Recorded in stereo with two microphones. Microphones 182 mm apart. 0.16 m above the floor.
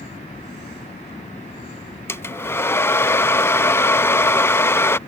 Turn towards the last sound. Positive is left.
turn(degrees=15)  # may be behind; listen again after turning